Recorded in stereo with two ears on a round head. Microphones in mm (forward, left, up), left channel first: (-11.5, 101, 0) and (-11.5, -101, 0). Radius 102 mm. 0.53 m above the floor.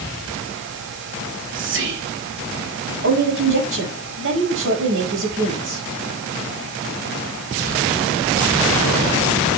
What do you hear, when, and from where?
1.2 s whispering: 60° right (ahead or behind), 3 m
3.0 s a woman speaking: 60° right (ahead or behind), 5 m